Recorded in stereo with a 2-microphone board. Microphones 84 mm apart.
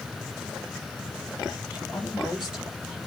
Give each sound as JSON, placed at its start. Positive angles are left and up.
{"t": 1.7, "sound": "a woman speaking", "side_deg": -10, "distance_m": 6.5}